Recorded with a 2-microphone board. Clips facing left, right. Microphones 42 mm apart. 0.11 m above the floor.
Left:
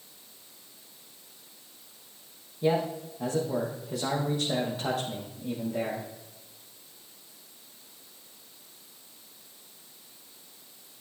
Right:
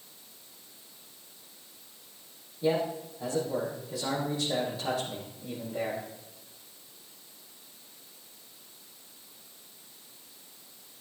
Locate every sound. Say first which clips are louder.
2.6 s a man speaking: left 1 dB; 55° left (ahead or behind), 5 m